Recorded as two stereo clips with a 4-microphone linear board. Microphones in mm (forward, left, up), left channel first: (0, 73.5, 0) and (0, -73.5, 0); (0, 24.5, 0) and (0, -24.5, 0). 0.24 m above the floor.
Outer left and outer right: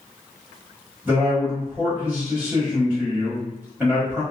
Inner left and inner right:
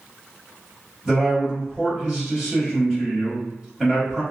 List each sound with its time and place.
1.1 s a man speaking: 10° right (ahead or behind), 1.5 m